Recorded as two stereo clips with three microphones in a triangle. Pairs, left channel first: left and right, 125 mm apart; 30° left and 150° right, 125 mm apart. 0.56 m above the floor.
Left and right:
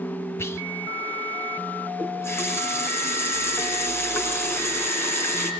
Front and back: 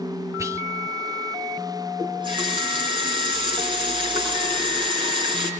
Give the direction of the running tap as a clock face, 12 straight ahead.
7 o'clock.